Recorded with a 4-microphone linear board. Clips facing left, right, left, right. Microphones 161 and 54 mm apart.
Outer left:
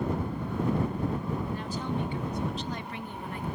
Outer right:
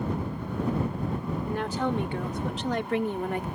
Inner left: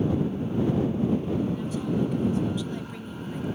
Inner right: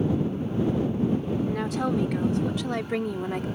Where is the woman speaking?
85° right; by 3.5 s 75° right (ahead or behind).